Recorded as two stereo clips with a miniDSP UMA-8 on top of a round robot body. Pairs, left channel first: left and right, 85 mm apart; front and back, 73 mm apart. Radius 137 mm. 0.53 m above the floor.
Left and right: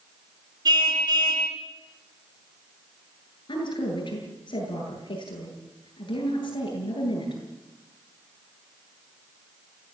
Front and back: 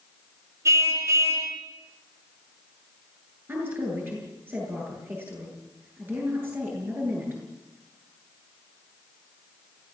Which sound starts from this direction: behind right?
A car horn, at 0.7 s.